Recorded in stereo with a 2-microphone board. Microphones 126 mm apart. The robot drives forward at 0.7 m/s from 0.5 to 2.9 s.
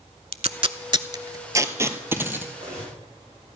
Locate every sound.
0.3 s tape being pulled: 55° right (ahead or behind), 0.5 m; by 2.4 s 15° right (ahead or behind), 1.5 m
2.5 s cutlery clinking: 65° right (ahead or behind), 6 m; by 3.0 s 60° right (ahead or behind), 6 m